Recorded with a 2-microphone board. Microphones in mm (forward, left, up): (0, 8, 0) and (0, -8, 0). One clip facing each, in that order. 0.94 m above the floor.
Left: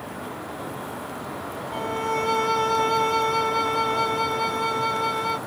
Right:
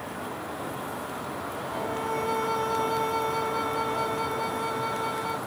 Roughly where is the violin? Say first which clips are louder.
Left 5 dB; left.